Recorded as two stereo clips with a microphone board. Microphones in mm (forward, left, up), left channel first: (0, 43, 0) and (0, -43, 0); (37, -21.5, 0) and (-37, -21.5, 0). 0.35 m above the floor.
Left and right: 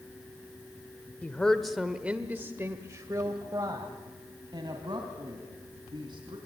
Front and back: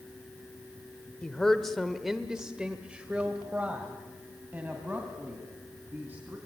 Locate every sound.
1.2 s a woman speaking: 60° left, 1.3 m; by 6.4 s 115° right, 4 m